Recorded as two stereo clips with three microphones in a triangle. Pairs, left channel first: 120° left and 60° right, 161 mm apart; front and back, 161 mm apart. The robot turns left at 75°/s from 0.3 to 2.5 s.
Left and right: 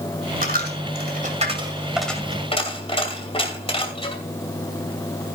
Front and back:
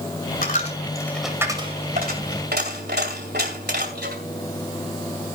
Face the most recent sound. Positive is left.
turn(degrees=175)